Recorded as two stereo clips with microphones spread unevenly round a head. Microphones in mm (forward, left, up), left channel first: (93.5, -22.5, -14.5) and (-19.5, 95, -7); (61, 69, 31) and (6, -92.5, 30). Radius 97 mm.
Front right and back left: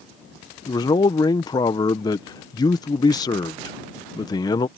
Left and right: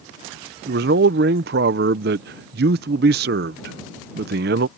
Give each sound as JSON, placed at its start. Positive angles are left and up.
{"t": 0.7, "sound": "a man speaking", "azimuth_deg": -115}